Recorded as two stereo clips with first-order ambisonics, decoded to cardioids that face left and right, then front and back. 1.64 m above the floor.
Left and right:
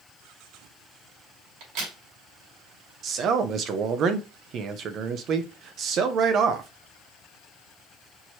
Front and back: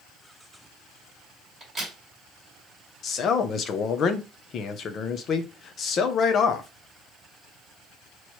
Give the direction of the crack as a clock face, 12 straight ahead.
3 o'clock.